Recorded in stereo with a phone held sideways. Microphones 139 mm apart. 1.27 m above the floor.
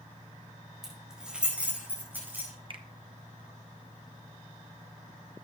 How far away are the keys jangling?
About 4.5 m.